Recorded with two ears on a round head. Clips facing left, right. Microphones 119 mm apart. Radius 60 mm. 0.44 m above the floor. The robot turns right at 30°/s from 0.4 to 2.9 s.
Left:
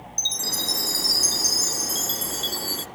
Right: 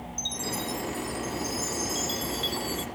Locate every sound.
0.2 s a chime: 65° left; by 2.9 s 140° left